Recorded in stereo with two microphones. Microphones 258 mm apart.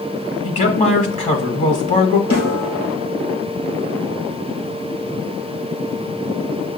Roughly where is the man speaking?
Left.